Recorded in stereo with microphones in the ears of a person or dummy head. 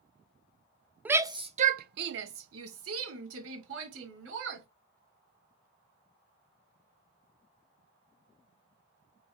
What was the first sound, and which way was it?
A shout, 5° right (ahead or behind).